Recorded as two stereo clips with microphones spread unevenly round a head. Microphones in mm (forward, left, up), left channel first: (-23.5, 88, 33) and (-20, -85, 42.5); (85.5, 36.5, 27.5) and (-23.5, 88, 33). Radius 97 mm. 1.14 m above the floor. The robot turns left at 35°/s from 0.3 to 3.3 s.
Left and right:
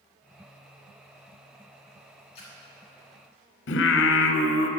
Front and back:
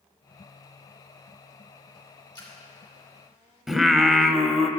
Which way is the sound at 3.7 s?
65° left.